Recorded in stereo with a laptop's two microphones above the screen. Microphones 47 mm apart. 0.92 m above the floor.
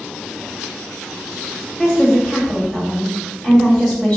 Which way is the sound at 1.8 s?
15° left (ahead or behind).